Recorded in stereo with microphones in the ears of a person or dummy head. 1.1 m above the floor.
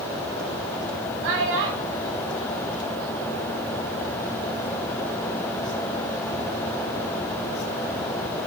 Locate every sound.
1.2 s a child speaking: 70° right (ahead or behind), 6.5 m; by 3.6 s 85° right, 8 m